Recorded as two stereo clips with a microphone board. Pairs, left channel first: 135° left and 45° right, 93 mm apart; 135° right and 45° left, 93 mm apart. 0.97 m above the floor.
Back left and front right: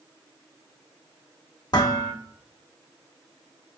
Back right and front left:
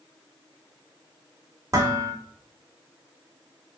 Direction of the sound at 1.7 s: 95° left.